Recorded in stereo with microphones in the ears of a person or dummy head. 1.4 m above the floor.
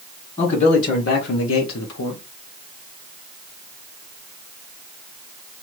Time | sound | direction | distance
0.4 | a man speaking | 35° left (ahead or behind) | 1.2 m